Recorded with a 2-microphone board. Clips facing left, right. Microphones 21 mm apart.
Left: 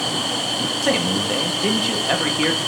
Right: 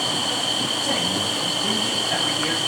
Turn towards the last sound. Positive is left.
turn(degrees=70)  # may be behind; listen again after turning